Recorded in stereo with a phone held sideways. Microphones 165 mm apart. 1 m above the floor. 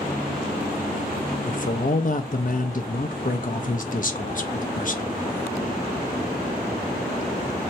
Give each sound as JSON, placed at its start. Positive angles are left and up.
{"t": 1.5, "sound": "a man speaking", "side_deg": 55, "distance_m": 0.6}